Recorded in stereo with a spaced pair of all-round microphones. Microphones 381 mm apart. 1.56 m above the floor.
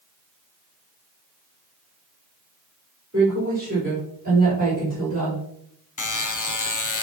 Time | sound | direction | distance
3.1 | a woman speaking | 30° right (ahead or behind) | 4.5 m
6.0 | a buzzer | 55° left (ahead or behind) | 0.6 m